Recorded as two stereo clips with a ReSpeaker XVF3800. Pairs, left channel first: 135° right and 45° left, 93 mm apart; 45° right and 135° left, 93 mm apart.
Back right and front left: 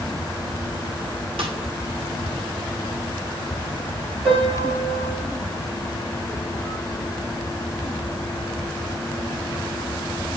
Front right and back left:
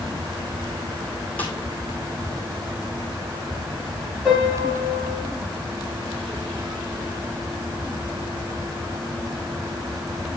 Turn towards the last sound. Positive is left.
turn(degrees=45)